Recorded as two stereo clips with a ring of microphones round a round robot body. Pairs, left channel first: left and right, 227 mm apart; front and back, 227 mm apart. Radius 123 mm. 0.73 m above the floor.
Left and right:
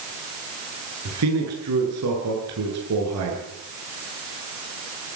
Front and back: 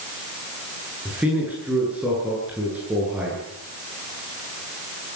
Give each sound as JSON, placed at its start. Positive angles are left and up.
{"t": 1.1, "sound": "a man speaking", "azimuth_deg": -95, "distance_m": 10.0}